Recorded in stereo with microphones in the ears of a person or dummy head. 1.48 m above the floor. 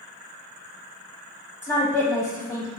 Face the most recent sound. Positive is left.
turn(degrees=15)  # may be behind; listen again after turning